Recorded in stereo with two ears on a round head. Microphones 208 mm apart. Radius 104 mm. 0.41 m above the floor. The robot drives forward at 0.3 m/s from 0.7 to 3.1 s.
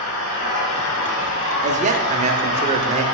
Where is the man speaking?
35° right (ahead or behind), 0.8 m; by 3.0 s 30° right (ahead or behind), 1.0 m.